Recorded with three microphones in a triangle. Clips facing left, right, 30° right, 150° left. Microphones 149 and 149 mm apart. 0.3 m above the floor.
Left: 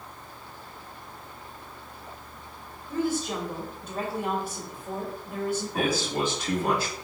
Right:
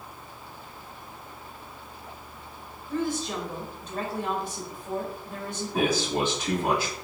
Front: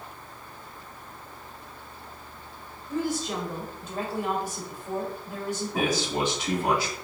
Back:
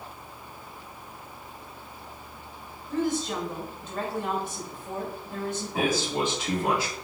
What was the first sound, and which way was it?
A woman speaking, 25° left.